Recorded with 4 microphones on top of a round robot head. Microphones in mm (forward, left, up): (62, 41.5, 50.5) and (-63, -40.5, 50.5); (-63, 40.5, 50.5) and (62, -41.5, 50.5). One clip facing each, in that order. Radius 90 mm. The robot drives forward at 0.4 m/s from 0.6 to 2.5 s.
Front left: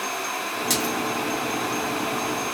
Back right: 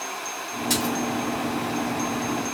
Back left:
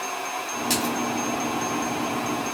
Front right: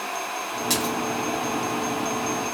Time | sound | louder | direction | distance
0.7 | a splash | back right 2 dB, back left 1 dB | 60° left | 0.6 m